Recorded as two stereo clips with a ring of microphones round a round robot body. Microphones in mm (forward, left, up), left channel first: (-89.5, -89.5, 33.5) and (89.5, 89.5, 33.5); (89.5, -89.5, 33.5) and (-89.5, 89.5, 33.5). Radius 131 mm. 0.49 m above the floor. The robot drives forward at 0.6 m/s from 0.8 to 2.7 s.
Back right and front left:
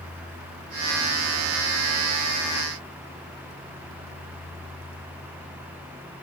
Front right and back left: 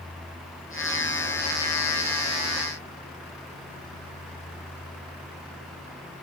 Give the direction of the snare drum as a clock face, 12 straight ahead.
No snare drum in this recording.